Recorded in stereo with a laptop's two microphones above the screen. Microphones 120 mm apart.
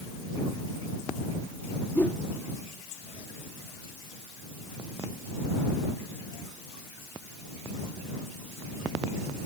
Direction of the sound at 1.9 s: 15° left (ahead or behind).